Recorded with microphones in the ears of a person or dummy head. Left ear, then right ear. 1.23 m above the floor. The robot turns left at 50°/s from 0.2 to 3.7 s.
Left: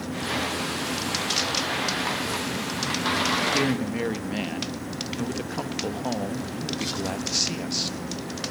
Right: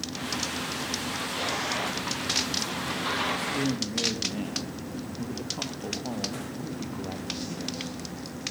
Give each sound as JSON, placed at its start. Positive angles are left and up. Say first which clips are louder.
{"t": 3.4, "sound": "a man speaking", "louder": "left 5 dB", "side_deg": 60, "distance_m": 1.6}